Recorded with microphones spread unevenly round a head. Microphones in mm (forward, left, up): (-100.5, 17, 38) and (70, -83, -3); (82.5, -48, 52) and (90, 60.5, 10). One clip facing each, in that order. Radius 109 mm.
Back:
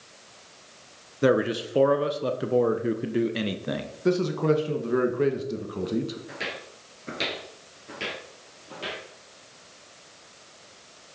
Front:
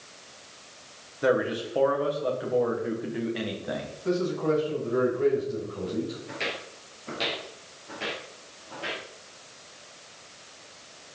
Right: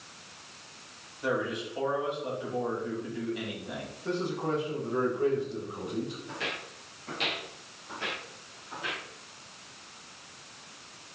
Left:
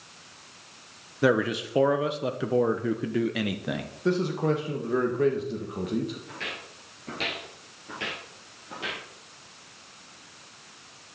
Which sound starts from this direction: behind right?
Footsteps, at 6.3 s.